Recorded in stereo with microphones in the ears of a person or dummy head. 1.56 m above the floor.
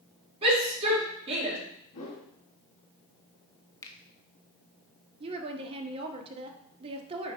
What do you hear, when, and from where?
0.4 s a shout: 30° right (ahead or behind), 4.5 m
1.9 s a whoosh: 30° left (ahead or behind), 2 m
3.8 s a finger snap: 20° left (ahead or behind), 1.0 m
5.2 s a woman speaking: 25° right (ahead or behind), 1.3 m